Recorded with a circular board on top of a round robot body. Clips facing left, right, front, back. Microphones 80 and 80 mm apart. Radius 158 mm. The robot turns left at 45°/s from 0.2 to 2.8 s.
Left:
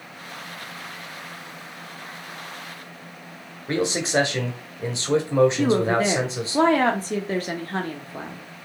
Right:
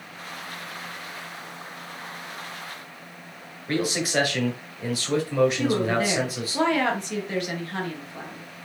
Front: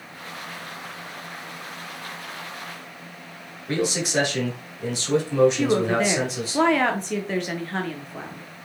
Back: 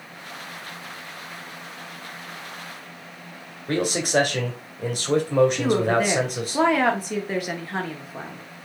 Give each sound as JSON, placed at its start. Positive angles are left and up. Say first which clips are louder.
{"t": 3.7, "sound": "a man speaking", "louder": "left 2 dB, back 2 dB", "azimuth_deg": 150, "distance_m": 1.4}
{"t": 5.6, "sound": "a woman speaking", "louder": "left 3 dB, even", "azimuth_deg": 100, "distance_m": 1.0}